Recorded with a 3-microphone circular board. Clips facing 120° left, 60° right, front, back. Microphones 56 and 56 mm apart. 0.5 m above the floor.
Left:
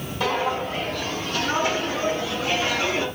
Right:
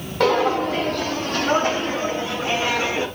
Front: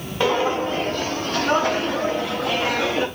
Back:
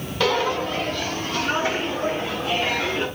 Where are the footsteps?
65° right, 1.0 m; by 3.1 s 5° left, 1.7 m.